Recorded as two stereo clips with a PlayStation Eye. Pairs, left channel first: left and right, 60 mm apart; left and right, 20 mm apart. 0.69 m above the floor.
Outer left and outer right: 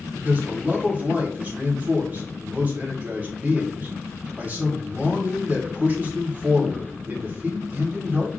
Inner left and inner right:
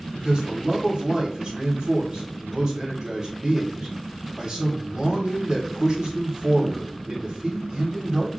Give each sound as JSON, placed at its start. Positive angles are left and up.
{"t": 0.1, "sound": "a man speaking", "side_deg": -25, "distance_m": 1.7}